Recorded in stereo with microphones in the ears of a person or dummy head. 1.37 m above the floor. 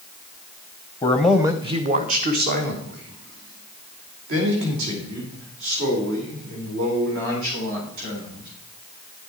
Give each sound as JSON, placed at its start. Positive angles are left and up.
{"t": 1.0, "sound": "a man speaking", "side_deg": 15, "distance_m": 0.7}